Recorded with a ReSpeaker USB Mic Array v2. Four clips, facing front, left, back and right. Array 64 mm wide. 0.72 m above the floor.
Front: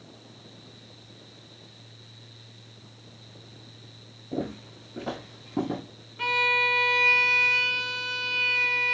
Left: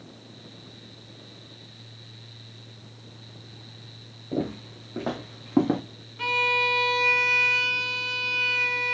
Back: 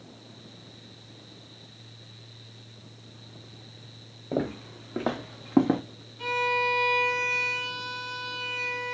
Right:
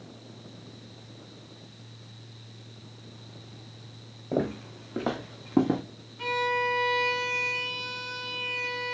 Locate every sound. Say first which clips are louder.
4.3 s footsteps: right 1 dB, back 3 dB; 145° right, 1.9 m; by 5.8 s 160° left, 1.4 m
6.2 s a violin: left 2 dB, front 1 dB; 30° left, 0.9 m